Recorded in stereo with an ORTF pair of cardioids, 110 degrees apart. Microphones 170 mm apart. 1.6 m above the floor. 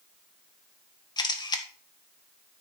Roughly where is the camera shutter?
Ahead left.